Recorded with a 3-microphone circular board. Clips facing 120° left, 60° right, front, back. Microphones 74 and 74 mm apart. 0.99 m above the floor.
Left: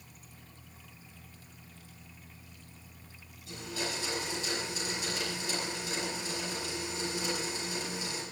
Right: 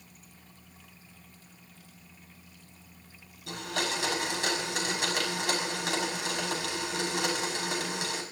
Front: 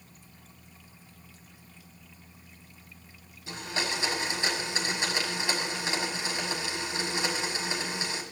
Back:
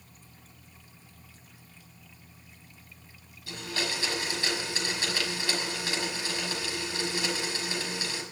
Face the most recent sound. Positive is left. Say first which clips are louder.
# right 5 dB, front 1 dB
turn(degrees=-70)